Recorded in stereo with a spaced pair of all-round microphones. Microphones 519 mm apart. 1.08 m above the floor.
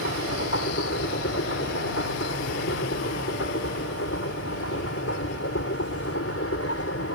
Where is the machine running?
25° left (ahead or behind).